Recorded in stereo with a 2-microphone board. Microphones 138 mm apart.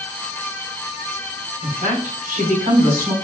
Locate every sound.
1.6 s a woman speaking: 60° right (ahead or behind), 5 m